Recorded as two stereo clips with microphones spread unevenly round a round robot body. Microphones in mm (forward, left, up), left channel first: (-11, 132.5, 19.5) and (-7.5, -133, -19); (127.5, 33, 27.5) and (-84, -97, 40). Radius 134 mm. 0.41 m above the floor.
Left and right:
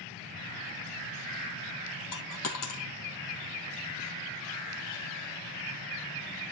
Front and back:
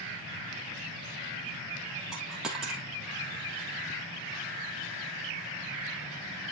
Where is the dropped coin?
125° left, 2 m.